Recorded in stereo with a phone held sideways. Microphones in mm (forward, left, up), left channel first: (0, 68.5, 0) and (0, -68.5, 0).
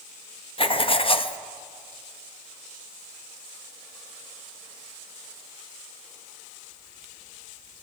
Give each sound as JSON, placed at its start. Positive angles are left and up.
{"t": 0.6, "sound": "writing", "side_deg": 40, "distance_m": 0.6}